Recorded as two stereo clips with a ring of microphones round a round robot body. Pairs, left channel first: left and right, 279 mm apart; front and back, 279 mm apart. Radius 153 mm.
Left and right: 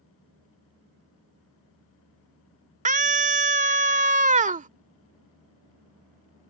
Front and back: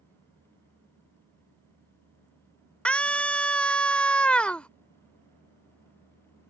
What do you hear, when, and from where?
2.9 s a scream: 80° right